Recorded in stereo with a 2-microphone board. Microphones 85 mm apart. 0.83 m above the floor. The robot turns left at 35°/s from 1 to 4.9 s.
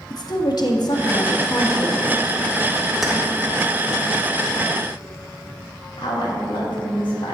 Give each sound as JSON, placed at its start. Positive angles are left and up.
{"t": 0.1, "sound": "a woman speaking", "azimuth_deg": 70, "distance_m": 1.2}
{"t": 3.0, "sound": "keys jangling", "side_deg": -5, "distance_m": 1.4}
{"t": 6.0, "sound": "a woman speaking", "side_deg": 70, "distance_m": 2.5}